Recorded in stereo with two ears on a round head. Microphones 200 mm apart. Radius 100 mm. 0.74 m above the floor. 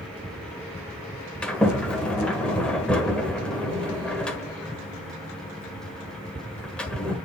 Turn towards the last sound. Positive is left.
turn(degrees=5)  # may be behind; listen again after turning